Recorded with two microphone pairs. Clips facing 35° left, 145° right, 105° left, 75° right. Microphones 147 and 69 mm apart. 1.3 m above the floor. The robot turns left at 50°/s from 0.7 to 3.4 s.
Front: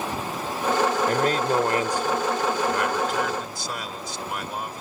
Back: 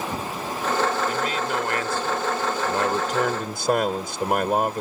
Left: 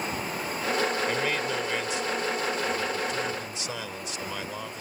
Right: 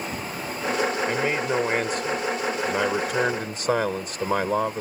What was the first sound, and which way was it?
A man speaking, straight ahead.